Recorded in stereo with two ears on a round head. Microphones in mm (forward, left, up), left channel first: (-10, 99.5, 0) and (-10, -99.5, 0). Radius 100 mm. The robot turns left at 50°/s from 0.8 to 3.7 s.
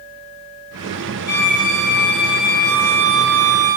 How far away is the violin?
About 1.1 m.